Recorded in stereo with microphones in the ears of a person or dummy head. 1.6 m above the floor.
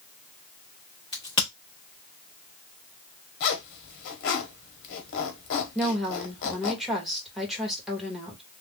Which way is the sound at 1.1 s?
20° left (ahead or behind).